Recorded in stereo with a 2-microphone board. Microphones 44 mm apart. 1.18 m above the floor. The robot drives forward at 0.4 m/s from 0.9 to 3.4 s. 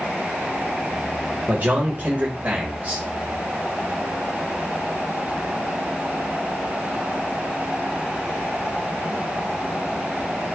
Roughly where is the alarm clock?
I don't hear an alarm clock.